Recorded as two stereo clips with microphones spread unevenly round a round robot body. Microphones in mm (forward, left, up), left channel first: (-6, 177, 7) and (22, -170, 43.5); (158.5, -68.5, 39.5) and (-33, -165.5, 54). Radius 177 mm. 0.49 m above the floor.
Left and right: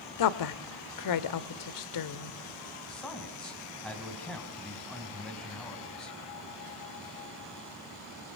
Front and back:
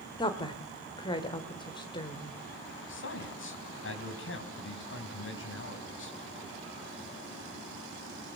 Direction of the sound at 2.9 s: 10° left.